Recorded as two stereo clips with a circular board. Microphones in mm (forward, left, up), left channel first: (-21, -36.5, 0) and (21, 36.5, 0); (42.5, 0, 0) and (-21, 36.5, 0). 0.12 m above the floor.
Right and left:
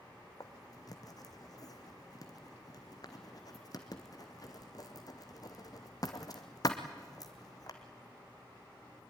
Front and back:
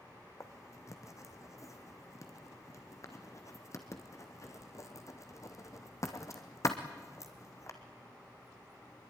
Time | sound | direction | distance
0.4 | writing | 75° right | 2 m